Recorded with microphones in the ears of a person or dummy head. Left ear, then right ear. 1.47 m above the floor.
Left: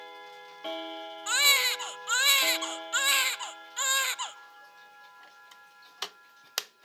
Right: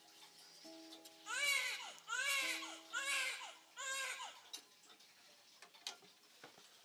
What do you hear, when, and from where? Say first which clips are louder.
1.3 s a baby crying: left 15 dB; 55° left (ahead or behind), 0.9 m